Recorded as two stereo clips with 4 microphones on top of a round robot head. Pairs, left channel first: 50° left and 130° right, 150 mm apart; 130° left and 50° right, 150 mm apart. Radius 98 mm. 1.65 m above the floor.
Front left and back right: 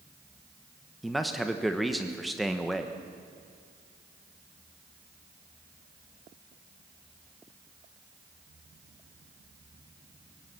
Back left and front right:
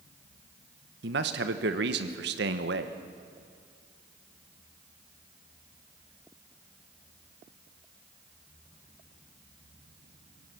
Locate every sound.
1.0 s a man speaking: 40° right, 1.2 m